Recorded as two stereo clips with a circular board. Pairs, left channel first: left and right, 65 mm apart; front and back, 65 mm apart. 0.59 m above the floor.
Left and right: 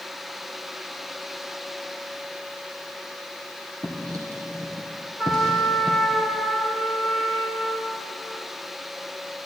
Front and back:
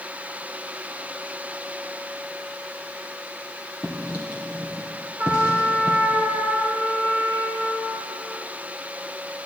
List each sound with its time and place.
3.8 s writing: 110° right, 2.5 m
5.2 s a trumpet: 160° right, 1.5 m